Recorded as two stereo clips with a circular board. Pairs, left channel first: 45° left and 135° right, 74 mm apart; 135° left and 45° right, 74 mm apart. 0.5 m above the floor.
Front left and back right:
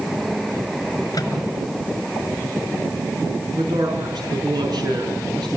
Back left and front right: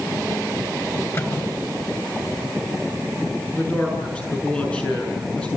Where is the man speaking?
150° right, 6.5 m.